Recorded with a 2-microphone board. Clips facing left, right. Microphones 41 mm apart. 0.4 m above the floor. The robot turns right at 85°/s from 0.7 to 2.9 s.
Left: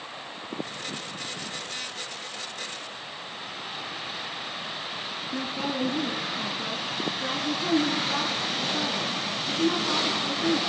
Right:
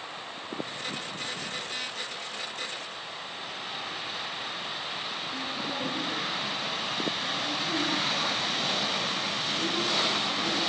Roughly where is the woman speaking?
Left.